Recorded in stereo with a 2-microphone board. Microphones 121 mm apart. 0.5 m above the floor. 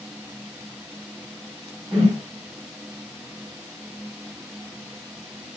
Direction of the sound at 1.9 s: 20° right (ahead or behind).